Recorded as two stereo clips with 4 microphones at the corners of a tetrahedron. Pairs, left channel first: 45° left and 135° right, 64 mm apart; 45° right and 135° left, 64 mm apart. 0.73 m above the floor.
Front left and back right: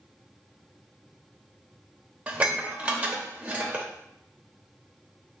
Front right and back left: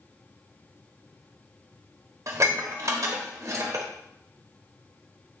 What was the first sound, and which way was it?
Dishes clattering, 160° left.